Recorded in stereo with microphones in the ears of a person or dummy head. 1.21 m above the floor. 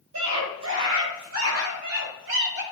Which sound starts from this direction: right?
A scream, at 0.1 s.